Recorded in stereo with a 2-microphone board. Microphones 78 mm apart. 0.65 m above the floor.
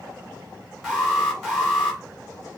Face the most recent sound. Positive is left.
turn(degrees=0)  # may be behind; listen again after turning